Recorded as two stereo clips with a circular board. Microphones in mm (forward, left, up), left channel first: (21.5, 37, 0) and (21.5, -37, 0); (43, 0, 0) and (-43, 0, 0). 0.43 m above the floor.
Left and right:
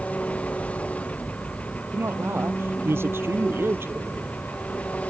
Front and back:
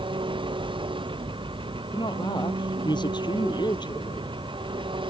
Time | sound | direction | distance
0.0 | an engine running | 165° left | ?
1.9 | a woman speaking | 30° right | ?